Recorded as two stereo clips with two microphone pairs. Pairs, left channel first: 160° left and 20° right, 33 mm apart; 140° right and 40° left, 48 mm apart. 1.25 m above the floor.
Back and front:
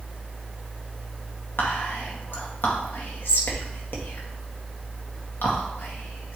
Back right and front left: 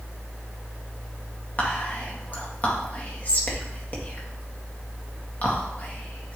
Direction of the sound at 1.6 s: 165° left.